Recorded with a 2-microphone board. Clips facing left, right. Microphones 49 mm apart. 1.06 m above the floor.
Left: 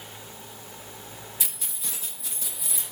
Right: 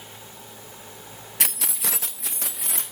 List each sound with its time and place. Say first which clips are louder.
1.4 s keys jangling: right 13 dB; 65° right (ahead or behind), 0.6 m; by 2.8 s 60° right (ahead or behind), 1.9 m